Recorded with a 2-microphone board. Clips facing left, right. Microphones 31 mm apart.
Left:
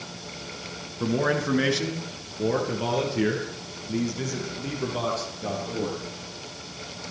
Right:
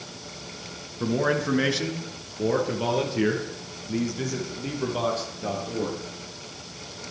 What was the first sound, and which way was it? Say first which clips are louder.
A man speaking: even; centre (ahead or behind).